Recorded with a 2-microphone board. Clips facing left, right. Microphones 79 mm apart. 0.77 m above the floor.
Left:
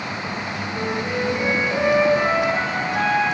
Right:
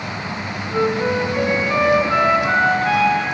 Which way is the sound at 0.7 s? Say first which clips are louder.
Right 8 dB; 75° right (ahead or behind).